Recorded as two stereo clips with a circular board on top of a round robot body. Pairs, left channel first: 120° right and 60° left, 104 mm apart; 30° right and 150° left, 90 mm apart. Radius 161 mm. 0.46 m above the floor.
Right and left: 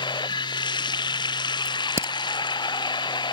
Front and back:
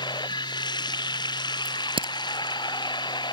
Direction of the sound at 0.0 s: 70° right.